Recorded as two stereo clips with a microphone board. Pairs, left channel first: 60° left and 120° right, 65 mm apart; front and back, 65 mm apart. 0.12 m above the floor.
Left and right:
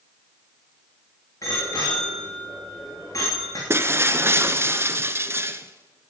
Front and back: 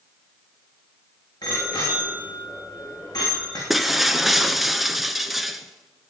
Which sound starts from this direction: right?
Breaking glass, at 3.7 s.